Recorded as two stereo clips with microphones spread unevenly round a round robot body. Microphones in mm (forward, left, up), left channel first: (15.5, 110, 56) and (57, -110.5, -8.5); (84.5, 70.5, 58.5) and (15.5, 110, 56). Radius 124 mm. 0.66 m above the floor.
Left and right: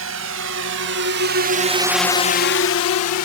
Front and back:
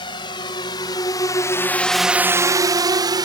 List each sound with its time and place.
0.0 s a drone: 70° right; by 3.3 s 125° left